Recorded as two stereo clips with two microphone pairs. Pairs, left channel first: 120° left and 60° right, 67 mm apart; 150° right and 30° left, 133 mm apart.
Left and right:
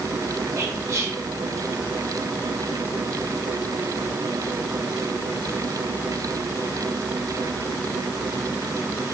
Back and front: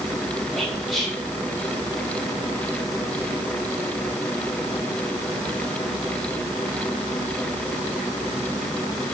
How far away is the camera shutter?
No camera shutter in this recording.